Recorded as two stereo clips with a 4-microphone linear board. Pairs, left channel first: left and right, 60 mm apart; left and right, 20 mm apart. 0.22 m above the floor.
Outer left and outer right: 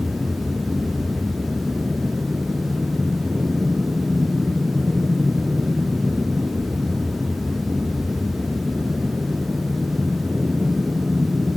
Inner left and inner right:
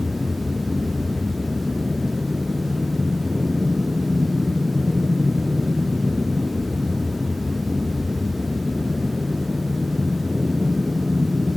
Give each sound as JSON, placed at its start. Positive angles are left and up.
{"t": 0.0, "sound": "an aircraft", "side_deg": -40}